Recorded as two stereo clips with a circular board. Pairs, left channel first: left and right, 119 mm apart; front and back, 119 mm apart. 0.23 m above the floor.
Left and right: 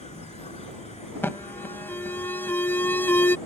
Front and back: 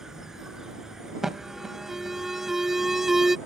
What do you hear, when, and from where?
0.0 s an insect: 95° left
1.2 s an alarm: 100° left